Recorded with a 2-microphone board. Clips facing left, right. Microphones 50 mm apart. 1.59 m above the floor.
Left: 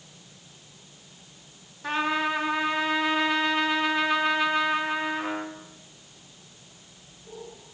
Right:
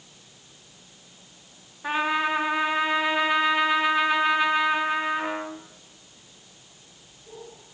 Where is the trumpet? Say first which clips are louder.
Right 2 dB; 15° right (ahead or behind), 2.5 m.